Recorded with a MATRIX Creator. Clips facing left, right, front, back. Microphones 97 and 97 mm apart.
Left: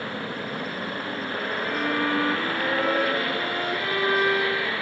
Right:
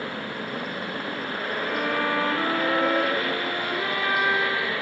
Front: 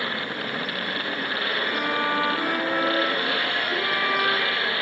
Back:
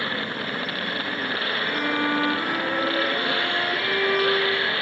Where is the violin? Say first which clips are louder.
Even, back 1 dB; 45° right, 3.5 m.